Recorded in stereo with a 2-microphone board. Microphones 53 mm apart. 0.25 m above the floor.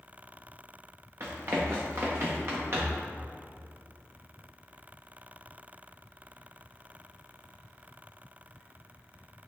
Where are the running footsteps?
50° right (ahead or behind), 2 m.